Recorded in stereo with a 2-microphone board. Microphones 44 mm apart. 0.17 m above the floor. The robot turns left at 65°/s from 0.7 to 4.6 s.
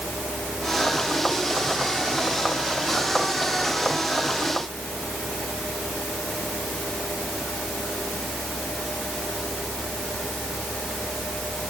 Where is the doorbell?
No doorbell in this recording.